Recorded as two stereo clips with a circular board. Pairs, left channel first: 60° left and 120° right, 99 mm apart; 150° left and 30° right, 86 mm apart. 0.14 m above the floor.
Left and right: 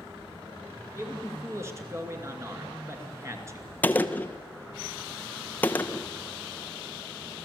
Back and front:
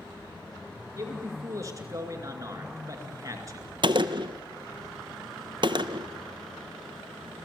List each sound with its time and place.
1.0 s a man speaking: 70° right, 2.5 m
3.8 s a gunshot: 10° right, 0.8 m